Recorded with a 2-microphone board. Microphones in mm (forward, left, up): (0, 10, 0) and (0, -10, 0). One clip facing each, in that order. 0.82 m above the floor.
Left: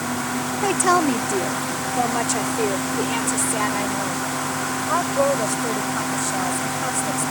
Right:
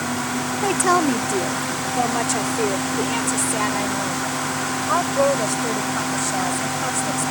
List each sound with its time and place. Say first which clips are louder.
0.6 s a woman speaking: even; 15° left (ahead or behind); by 7.3 s 25° right (ahead or behind)